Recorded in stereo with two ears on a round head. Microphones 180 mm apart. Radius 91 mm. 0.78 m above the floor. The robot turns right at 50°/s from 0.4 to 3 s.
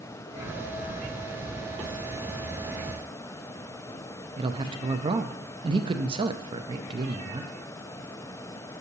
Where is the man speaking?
25° right (ahead or behind), 0.6 m.